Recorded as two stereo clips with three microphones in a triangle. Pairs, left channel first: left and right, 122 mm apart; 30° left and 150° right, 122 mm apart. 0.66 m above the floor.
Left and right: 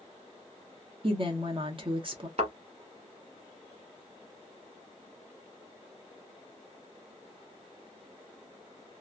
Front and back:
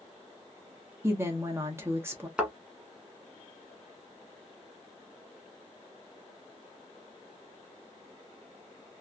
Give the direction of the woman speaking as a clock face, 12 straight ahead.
3 o'clock.